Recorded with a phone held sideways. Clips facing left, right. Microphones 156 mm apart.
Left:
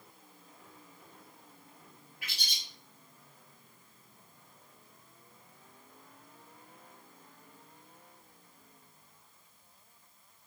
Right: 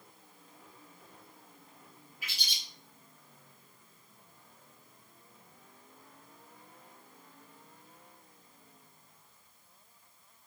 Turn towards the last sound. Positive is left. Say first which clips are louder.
# even
turn(degrees=65)  # may be behind; listen again after turning